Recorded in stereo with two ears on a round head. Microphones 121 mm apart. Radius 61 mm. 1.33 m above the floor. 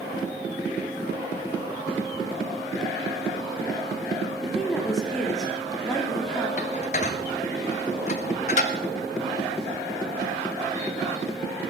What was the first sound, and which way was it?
A woman speaking, centre (ahead or behind).